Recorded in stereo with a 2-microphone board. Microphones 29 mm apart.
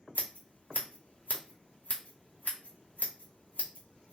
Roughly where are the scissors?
Left.